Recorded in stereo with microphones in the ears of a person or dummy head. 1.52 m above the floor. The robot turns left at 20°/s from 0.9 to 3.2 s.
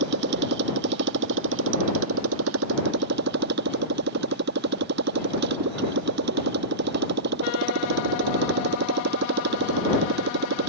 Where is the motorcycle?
75° right; by 10.7 s 120° right.